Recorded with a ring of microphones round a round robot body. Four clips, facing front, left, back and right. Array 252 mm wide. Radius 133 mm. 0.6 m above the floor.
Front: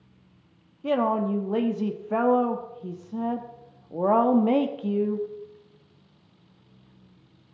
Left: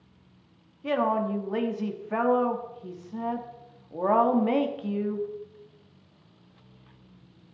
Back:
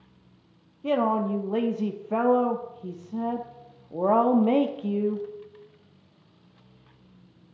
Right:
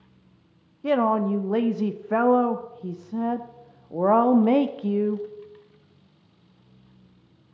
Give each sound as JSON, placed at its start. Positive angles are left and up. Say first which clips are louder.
{"t": 0.8, "sound": "a woman speaking", "louder": "right 4 dB, even", "azimuth_deg": -95, "distance_m": 0.9}